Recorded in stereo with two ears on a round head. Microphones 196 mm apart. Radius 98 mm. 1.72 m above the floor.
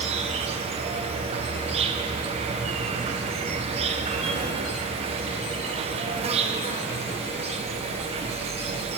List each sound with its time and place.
0.0 s an insect: 30° right (ahead or behind), 0.8 m